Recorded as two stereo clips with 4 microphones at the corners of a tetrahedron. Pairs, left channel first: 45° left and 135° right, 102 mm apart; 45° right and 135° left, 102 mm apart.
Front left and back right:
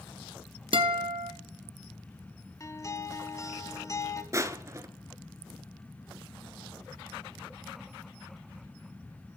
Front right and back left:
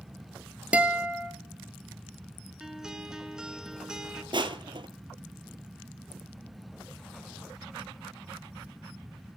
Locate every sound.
0.7 s a guitar: 150° right, 1.3 m
2.6 s a guitar: 55° left, 1.0 m
4.3 s crushing: 170° left, 0.8 m